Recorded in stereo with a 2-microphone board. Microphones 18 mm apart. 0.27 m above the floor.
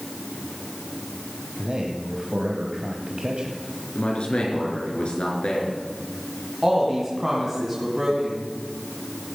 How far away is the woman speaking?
About 2.5 m.